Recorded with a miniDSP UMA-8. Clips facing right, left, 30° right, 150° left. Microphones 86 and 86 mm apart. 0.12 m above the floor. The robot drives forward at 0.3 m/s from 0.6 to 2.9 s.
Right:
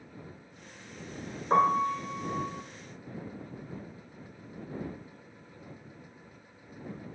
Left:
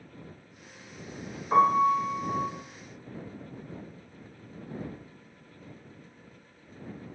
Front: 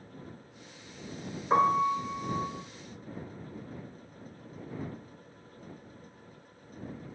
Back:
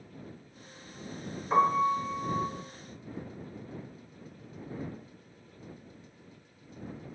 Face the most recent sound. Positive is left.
turn(degrees=-125)